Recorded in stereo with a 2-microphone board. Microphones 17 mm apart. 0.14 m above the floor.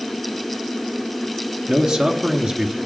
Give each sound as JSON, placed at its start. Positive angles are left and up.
{"t": 1.7, "sound": "a man speaking", "side_deg": -55, "distance_m": 1.8}